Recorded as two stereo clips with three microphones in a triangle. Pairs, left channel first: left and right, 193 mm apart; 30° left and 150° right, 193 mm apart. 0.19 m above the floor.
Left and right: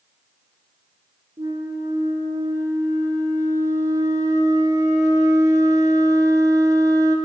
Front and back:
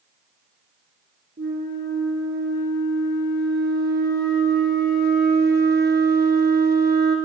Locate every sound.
1.4 s a flute: 160° right, 1.2 m